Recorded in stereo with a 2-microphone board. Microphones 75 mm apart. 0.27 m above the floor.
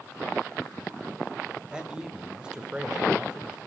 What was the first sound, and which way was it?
A man speaking, 10° right (ahead or behind).